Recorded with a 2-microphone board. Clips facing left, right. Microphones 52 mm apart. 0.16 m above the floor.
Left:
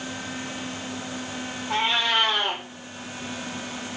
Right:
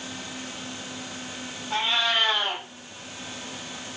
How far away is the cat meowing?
About 1.6 m.